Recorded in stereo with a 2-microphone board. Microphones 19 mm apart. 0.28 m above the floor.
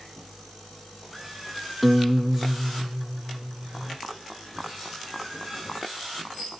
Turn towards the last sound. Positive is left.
turn(degrees=-5)  # may be behind; listen again after turning